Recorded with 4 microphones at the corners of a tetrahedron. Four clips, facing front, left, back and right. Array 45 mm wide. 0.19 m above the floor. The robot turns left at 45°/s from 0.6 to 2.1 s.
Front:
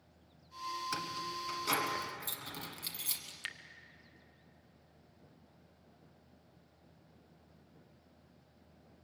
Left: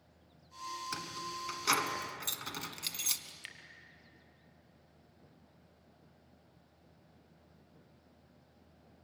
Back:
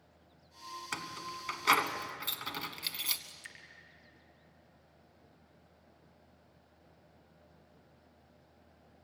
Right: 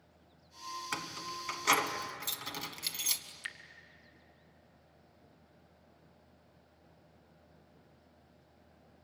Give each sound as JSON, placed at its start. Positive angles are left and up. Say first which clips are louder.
{"t": 0.9, "sound": "keys jangling", "louder": "right 1 dB, front 2 dB", "azimuth_deg": -130, "distance_m": 1.3}
{"t": 3.3, "sound": "dripping", "louder": "right 5 dB, front 5 dB", "azimuth_deg": -15, "distance_m": 1.2}